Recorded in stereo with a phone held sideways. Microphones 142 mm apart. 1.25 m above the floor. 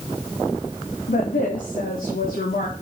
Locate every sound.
1.1 s a woman speaking: 70° left (ahead or behind), 2.5 m